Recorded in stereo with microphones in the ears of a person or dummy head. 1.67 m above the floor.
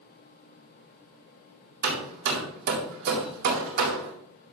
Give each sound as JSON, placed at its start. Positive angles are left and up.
{"t": 1.8, "sound": "hammering", "side_deg": -60, "distance_m": 4.0}